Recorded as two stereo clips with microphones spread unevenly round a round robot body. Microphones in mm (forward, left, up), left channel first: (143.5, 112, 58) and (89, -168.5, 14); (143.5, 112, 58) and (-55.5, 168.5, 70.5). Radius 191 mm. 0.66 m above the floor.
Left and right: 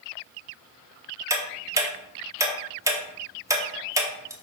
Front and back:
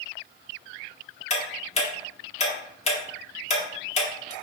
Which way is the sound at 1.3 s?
40° right.